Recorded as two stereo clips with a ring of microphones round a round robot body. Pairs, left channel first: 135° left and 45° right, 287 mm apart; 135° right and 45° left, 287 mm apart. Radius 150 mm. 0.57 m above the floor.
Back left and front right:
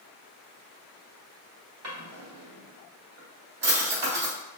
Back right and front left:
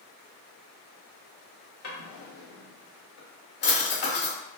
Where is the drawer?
80° right, 1.0 m.